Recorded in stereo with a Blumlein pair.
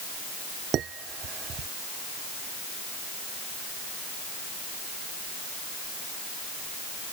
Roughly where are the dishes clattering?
Ahead right.